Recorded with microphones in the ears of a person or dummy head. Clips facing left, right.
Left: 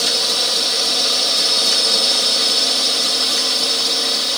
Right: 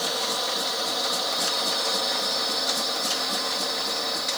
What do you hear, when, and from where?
0.0 s a drone: 35° left (ahead or behind); by 4.4 s 40° left (ahead or behind)